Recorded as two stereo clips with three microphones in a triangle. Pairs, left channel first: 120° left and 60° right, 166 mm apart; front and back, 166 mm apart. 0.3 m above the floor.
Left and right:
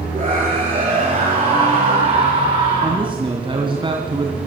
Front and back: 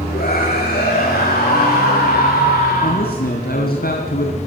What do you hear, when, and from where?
0.1 s a scream: 15° right, 5.5 m; by 3.1 s 5° left, 3.5 m
2.8 s a man speaking: straight ahead, 2 m